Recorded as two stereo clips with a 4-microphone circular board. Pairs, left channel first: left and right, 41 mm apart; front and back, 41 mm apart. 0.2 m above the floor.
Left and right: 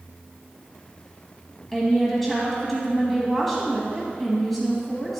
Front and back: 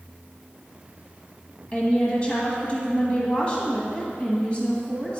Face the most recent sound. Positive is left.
turn(degrees=0)